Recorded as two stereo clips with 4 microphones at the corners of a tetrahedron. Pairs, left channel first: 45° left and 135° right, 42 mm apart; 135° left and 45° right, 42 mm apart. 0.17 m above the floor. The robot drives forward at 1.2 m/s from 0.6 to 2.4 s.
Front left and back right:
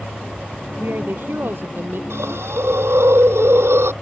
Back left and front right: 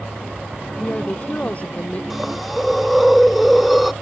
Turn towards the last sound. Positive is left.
turn(degrees=-135)